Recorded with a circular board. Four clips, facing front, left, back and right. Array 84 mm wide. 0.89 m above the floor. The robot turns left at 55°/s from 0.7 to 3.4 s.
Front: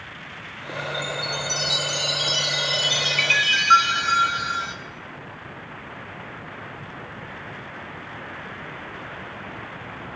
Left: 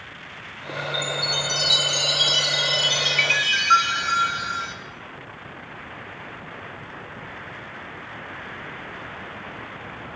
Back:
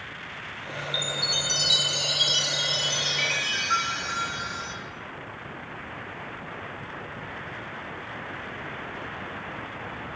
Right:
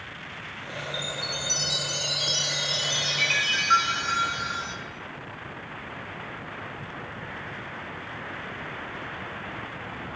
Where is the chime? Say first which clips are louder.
Left 6 dB, front 4 dB; 160° left, 1.0 m; by 4.8 s 25° left, 1.0 m.